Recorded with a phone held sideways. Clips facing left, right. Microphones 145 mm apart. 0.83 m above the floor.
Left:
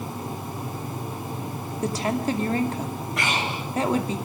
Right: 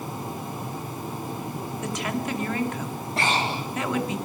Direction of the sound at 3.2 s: 30° right (ahead or behind).